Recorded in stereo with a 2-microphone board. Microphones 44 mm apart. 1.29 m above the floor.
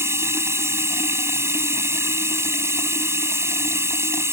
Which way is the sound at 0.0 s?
85° right.